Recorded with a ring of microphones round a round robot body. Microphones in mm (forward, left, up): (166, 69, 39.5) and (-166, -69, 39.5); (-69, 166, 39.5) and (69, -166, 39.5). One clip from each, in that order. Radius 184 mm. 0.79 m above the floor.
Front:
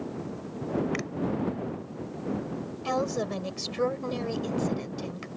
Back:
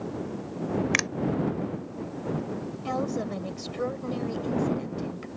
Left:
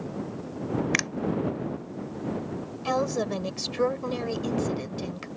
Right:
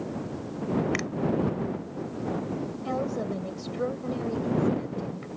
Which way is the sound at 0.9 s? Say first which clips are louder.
Back 8 dB, left 5 dB; 160° left.